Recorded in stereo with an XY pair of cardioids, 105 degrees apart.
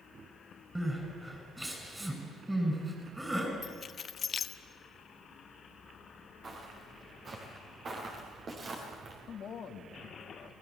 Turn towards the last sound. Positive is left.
turn(degrees=50)